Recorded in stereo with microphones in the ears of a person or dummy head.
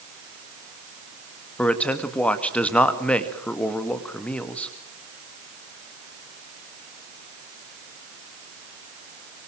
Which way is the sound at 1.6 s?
10° left (ahead or behind).